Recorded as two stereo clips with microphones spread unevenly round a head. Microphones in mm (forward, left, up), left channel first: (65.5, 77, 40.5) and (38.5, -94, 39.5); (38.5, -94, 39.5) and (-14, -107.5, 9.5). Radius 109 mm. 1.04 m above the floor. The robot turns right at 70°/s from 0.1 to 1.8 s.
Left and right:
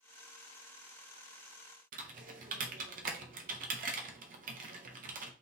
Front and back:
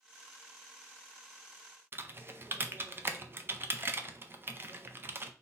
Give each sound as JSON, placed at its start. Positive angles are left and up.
{"t": 1.9, "sound": "typing on a keyboard", "azimuth_deg": -140, "distance_m": 0.7}